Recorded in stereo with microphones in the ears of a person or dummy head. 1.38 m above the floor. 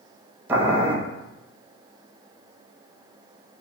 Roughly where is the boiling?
Centre.